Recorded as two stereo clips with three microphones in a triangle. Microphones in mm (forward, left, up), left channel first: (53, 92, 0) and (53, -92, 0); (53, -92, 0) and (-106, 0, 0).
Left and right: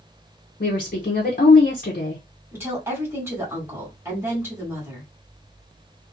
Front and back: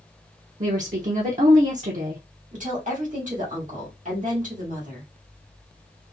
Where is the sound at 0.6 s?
115° left, 0.6 m.